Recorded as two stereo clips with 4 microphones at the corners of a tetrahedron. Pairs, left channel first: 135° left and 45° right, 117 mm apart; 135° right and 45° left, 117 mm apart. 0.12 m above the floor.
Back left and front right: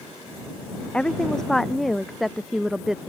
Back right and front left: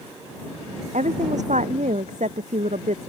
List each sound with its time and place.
0.9 s a woman speaking: 50° left; by 3.1 s 40° left